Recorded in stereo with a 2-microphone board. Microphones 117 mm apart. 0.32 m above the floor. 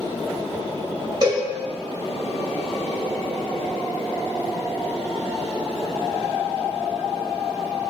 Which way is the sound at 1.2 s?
35° right (ahead or behind).